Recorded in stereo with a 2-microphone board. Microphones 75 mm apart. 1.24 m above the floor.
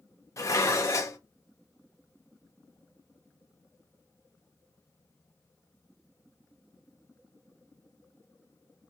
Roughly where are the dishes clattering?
Left.